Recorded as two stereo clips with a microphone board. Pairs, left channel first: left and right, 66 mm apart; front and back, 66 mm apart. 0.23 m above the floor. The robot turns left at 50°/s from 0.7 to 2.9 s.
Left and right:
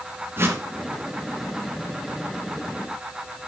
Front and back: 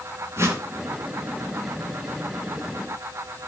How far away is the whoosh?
About 2.0 m.